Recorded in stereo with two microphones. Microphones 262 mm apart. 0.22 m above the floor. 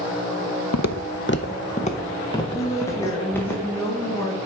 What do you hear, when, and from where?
0.7 s footsteps: 75° left (ahead or behind), 0.5 m; by 3.5 s 5° left (ahead or behind), 2 m
2.5 s a woman speaking: 10° left (ahead or behind), 2.5 m